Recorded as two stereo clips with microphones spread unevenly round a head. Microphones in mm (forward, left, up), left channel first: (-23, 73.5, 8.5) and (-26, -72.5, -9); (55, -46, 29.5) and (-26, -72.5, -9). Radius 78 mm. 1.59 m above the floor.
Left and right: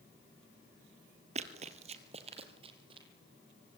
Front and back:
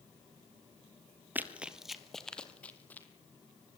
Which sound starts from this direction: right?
Running footsteps, at 1.4 s.